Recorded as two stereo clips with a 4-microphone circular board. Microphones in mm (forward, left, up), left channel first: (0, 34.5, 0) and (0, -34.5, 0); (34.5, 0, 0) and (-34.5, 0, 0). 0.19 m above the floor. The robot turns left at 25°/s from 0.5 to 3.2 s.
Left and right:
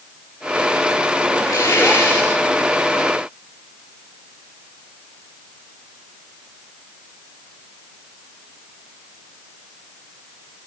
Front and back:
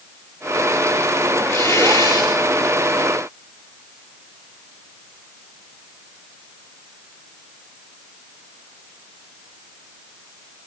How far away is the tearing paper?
About 9 m.